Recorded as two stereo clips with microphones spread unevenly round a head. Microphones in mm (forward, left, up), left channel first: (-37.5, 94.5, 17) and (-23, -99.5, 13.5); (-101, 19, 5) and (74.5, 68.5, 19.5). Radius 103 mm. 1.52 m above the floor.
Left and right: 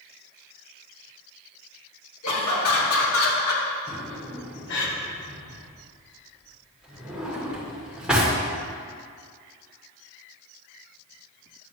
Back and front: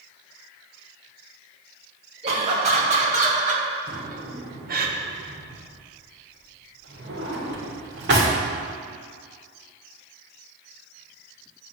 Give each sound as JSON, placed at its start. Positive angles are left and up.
{"t": 2.2, "sound": "laughter", "azimuth_deg": 70, "distance_m": 2.5}
{"t": 3.9, "sound": "a drawer", "azimuth_deg": 0, "distance_m": 1.9}